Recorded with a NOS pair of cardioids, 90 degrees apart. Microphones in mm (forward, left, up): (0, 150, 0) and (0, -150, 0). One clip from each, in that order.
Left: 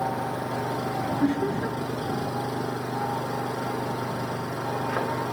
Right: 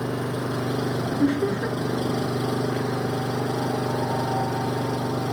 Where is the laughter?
20° right.